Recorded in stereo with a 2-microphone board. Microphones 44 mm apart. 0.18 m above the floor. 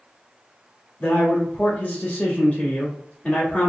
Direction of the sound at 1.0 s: 30° left (ahead or behind).